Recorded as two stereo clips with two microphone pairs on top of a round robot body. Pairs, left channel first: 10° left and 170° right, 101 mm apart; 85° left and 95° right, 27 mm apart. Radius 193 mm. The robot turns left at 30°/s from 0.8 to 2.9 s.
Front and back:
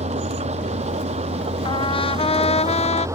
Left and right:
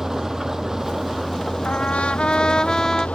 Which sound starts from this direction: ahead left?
A trumpet, at 1.6 s.